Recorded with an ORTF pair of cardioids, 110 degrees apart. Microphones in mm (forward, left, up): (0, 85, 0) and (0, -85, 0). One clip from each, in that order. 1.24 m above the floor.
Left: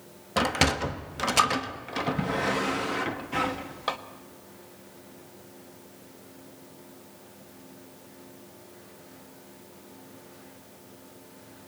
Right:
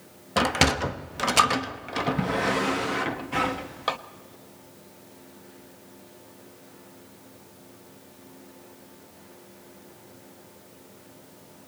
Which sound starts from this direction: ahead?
A sliding door, at 0.4 s.